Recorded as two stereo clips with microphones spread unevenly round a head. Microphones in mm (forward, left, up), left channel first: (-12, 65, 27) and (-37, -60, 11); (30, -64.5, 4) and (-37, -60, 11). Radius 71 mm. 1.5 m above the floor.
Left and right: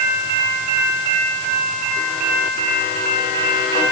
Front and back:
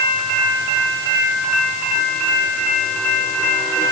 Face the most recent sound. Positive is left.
No sound to turn to.